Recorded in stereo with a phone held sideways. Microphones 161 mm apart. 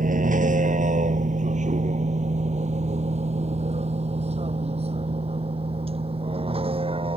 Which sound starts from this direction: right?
A vehicle, at 0.0 s.